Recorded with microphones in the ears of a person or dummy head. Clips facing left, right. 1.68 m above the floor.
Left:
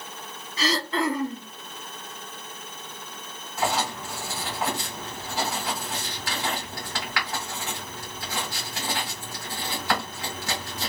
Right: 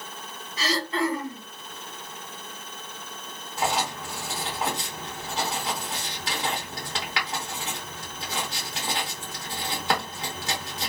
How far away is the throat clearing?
About 0.8 m.